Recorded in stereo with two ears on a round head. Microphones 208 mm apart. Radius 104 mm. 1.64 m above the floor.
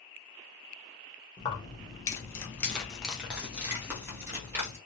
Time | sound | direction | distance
1.4 | keys jangling | 20° left (ahead or behind) | 0.8 m